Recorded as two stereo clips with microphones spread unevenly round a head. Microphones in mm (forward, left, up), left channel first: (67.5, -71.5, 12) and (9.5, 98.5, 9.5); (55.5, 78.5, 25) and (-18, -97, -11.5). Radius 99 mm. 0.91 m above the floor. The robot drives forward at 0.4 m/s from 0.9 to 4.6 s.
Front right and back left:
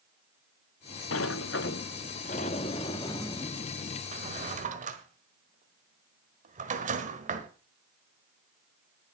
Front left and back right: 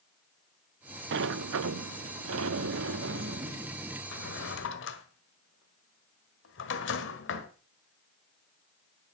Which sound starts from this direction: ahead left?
A drawer, at 4.1 s.